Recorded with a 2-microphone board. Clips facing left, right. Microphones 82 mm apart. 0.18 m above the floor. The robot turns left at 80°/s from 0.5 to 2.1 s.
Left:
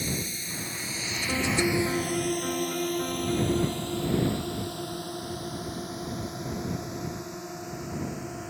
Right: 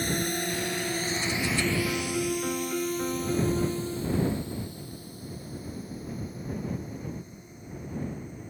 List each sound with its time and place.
0.0 s a drone: 55° right (ahead or behind); by 8.5 s 80° left
1.3 s a piano: 65° left; by 4.1 s 5° right